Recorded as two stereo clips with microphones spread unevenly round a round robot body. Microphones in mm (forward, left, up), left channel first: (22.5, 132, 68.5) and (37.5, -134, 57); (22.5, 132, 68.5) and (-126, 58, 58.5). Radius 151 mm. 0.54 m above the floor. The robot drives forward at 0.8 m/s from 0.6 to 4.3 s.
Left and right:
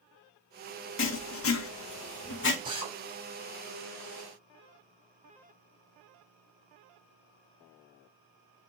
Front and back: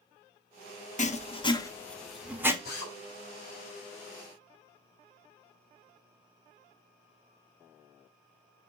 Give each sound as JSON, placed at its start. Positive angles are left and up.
{"t": 1.0, "sound": "writing", "azimuth_deg": 60, "distance_m": 1.2}
{"t": 2.6, "sound": "a drill", "azimuth_deg": -15, "distance_m": 3.5}